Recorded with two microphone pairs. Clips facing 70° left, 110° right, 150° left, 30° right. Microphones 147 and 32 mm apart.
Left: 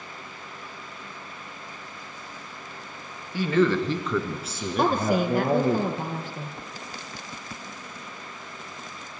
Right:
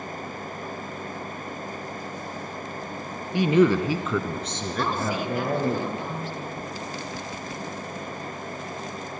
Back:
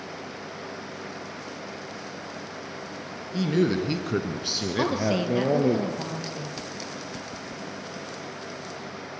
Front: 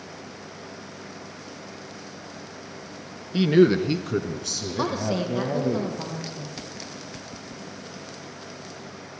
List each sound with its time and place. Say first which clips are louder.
3.3 s a man speaking: right 3 dB, front 6 dB; 45° right, 1.5 m; by 5.8 s 140° left, 2.5 m
4.8 s a woman speaking: left 5 dB, back 1 dB; 90° left, 2.5 m